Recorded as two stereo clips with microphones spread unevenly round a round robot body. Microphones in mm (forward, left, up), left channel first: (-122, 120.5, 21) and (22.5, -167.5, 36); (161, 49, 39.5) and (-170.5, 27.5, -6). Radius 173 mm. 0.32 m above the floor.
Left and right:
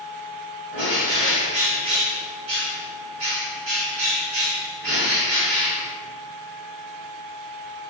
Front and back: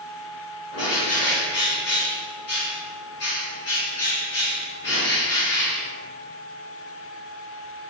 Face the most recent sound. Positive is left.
turn(degrees=-45)